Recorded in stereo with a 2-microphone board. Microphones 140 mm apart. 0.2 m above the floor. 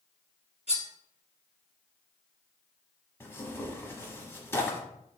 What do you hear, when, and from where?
0.7 s cutlery clinking: 50° right (ahead or behind), 1.8 m
3.2 s tearing paper: 15° left (ahead or behind), 0.8 m